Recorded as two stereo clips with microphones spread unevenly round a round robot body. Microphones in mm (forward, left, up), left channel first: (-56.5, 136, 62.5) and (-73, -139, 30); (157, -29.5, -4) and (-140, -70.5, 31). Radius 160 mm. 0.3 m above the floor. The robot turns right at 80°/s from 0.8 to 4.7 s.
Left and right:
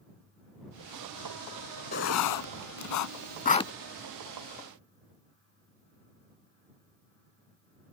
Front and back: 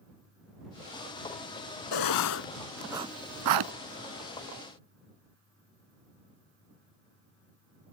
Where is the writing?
25° left; by 3.7 s 170° left.